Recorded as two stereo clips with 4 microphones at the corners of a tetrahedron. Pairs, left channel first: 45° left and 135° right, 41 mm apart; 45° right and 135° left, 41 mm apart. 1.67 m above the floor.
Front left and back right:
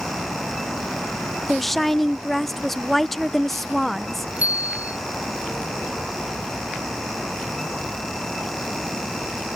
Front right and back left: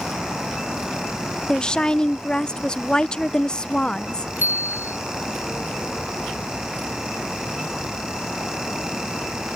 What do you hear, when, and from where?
1.5 s a woman speaking: 35° right
4.4 s a bicycle bell: 170° left